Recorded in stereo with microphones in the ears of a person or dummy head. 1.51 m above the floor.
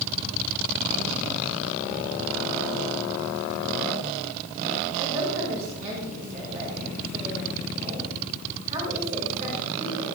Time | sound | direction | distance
5.0 | a woman speaking | 45° right (ahead or behind) | 4.5 m